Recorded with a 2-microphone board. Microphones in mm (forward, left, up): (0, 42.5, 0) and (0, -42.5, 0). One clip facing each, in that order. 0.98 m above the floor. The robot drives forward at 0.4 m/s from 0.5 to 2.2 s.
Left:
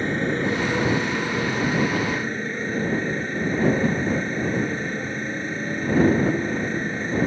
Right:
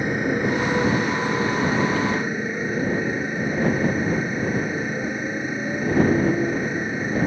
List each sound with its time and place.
0.0 s a motorcycle: 10° right (ahead or behind)